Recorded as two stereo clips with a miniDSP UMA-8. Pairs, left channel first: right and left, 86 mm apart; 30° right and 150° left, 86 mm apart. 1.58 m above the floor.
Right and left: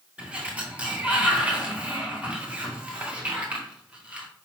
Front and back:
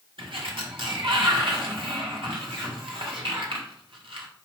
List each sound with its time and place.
0.2 s a sliding door: 165° left, 2 m